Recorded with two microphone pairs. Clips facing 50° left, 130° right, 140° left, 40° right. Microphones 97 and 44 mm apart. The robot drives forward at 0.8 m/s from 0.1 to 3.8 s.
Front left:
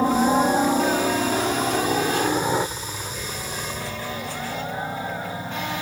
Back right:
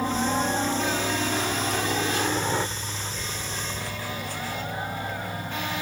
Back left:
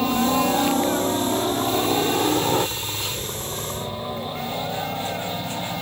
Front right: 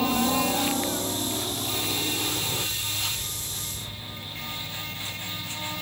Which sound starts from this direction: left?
A helicopter, at 0.0 s.